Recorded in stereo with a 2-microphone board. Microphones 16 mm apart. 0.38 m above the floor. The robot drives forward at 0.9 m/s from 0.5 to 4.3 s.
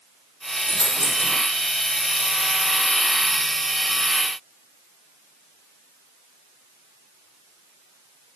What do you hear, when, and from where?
0.7 s a dropped coin: 55° left (ahead or behind), 1.3 m; by 1.4 s 35° left (ahead or behind), 1.7 m